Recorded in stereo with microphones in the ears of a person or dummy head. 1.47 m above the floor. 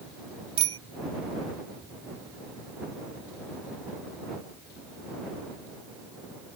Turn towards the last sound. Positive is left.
turn(degrees=-25)  # may be behind; listen again after turning